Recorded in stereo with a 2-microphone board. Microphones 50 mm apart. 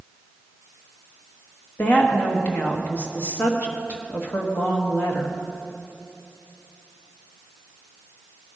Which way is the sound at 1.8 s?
35° left (ahead or behind).